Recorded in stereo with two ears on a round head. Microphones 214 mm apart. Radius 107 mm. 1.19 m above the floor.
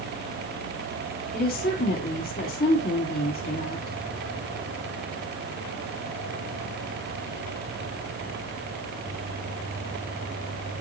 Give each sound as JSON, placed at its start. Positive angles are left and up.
{"t": 1.3, "sound": "a woman speaking", "side_deg": 40, "distance_m": 2.5}